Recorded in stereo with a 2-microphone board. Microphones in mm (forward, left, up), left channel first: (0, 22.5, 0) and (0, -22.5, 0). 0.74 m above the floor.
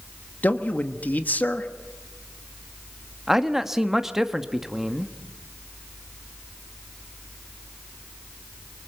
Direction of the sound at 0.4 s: 40° left (ahead or behind).